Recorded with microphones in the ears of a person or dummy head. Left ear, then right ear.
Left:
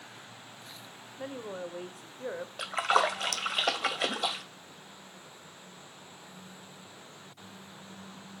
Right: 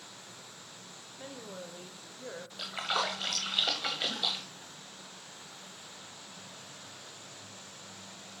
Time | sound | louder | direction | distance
1.2 | a woman speaking | left 6 dB | 30° left (ahead or behind) | 1.0 m
2.6 | a splash | left 6 dB | 35° left (ahead or behind) | 1.0 m